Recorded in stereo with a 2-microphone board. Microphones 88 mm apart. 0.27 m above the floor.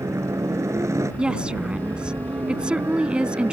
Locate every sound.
0.0 s a helicopter: 35° right (ahead or behind)
1.2 s a woman speaking: 10° right (ahead or behind)